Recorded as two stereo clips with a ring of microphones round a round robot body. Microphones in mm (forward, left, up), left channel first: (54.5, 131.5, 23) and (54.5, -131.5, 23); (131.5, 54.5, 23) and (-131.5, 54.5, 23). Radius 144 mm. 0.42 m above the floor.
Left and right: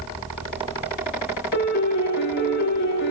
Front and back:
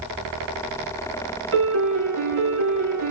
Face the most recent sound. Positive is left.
turn(degrees=145)